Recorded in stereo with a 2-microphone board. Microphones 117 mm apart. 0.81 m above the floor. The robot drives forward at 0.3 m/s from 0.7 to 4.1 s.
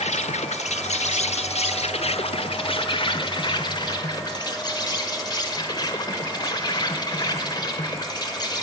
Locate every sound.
0.0 s an insect: 75° left (ahead or behind), 0.8 m; by 8.6 s 35° left (ahead or behind), 1.3 m